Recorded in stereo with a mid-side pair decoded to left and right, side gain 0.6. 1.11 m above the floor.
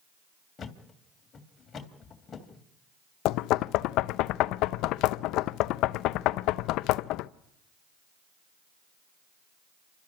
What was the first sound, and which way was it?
A thud, 35° left.